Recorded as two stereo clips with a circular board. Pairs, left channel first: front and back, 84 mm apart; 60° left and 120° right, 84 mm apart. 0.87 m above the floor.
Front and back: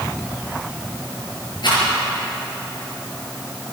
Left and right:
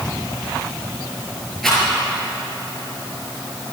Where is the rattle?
30° right, 6 m.